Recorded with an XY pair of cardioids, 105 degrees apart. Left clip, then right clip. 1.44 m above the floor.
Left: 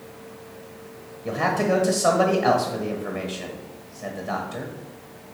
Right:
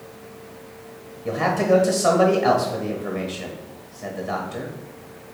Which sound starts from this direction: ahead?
A man speaking, at 1.2 s.